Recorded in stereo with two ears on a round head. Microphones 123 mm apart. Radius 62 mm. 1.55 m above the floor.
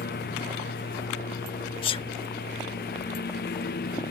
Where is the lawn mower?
85° left; by 4.1 s 80° left.